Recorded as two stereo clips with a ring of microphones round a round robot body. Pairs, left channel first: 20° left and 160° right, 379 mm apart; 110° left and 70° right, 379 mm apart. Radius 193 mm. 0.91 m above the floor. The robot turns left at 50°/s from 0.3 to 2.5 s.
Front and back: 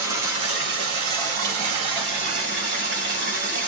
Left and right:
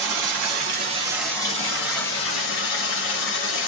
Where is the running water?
110° right, 2.5 m; by 3.7 s 140° left, 2.5 m.